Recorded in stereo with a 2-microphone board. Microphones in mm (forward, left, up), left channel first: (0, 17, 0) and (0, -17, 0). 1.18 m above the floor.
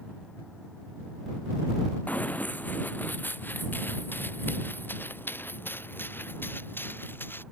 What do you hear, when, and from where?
2.1 s running footsteps: 50° left (ahead or behind); by 7.4 s 85° left